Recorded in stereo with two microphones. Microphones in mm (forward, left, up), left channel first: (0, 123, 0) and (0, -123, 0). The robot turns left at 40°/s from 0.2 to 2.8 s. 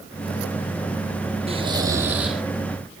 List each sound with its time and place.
1.5 s snoring: 140° right, 2 m; by 2.4 s straight behind, 2 m